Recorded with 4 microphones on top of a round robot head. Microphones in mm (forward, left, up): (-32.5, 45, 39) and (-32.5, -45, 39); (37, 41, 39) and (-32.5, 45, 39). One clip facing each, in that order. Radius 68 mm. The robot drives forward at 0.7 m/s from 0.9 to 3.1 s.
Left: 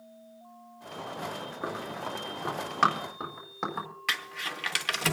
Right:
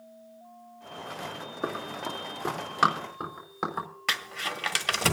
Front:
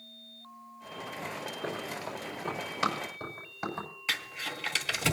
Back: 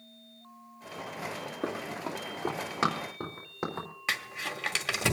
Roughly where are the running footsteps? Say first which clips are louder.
Right 3 dB, back 4 dB; behind.